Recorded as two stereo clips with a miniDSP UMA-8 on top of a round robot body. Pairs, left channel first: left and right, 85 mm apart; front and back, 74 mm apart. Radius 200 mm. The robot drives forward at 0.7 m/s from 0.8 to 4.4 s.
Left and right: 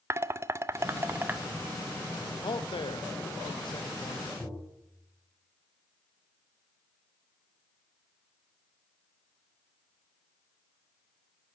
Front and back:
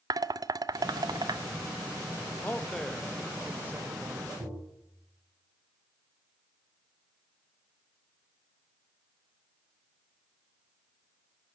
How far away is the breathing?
No breathing in this recording.